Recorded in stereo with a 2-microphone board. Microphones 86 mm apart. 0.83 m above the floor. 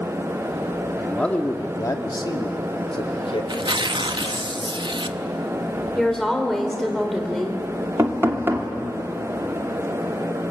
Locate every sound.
1.0 s a man speaking: 5° left (ahead or behind), 1.9 m; by 4.5 s 75° left (ahead or behind), 4 m
3.5 s tearing paper: 60° right (ahead or behind), 0.8 m
6.0 s a woman speaking: 5° left (ahead or behind), 3 m
8.0 s knocking: 30° right (ahead or behind), 1.8 m